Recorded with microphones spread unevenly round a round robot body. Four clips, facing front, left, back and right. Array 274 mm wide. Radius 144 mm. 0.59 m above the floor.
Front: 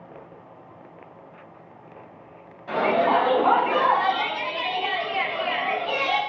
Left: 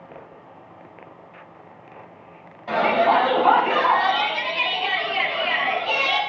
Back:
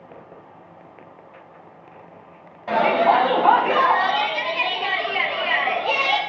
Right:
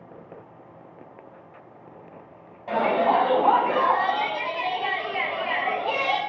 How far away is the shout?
About 4.5 m.